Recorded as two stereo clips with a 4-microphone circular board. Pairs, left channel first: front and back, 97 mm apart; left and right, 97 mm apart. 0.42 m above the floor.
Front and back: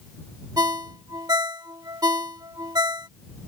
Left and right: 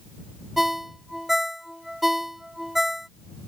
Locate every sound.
0.6 s a ringtone: 175° right